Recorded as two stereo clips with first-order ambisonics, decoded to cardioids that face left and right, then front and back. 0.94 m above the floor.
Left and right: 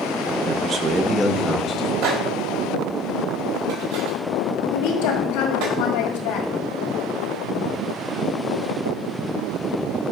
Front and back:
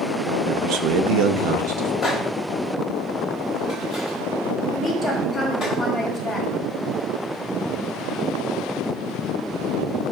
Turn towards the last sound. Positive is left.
turn(degrees=85)